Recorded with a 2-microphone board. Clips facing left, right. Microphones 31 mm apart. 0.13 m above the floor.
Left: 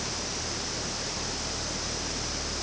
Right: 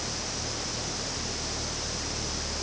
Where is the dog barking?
I don't hear a dog barking.